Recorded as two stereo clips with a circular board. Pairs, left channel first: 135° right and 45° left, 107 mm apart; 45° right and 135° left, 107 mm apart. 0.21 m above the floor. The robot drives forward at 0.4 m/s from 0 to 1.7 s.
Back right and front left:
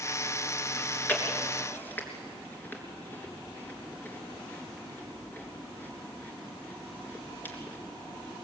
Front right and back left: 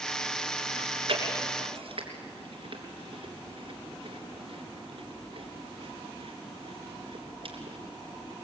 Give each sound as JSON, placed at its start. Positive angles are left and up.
{"t": 0.8, "sound": "chewing", "azimuth_deg": 150, "distance_m": 3.0}